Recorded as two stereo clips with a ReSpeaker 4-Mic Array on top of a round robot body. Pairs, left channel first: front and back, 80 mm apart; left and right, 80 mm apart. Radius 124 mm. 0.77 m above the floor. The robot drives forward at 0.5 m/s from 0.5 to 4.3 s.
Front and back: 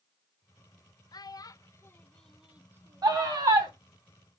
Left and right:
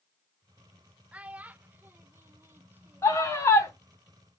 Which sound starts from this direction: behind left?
A scream, at 3.0 s.